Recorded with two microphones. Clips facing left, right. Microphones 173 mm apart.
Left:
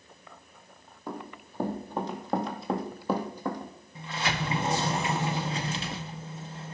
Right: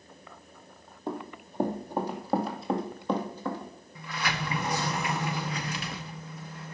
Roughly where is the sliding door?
Left.